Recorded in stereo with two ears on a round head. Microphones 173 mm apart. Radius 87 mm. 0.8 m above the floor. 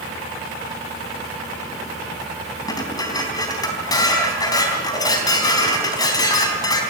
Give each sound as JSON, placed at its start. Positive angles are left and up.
{"t": 2.7, "sound": "dishes clattering", "side_deg": 20, "distance_m": 3.5}